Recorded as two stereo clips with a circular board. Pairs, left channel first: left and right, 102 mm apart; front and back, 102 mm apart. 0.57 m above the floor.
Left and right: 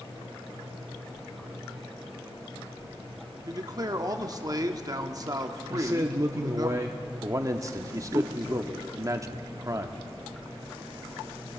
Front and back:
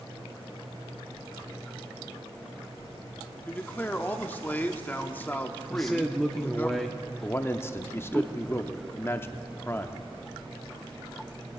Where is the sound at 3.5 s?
65° right, 0.9 m.